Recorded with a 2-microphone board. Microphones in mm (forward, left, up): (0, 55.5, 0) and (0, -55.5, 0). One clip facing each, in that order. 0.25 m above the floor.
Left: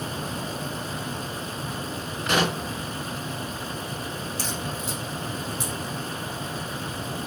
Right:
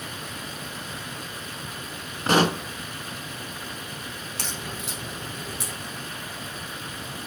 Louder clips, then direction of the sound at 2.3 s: Right 4 dB; 40° right (ahead or behind).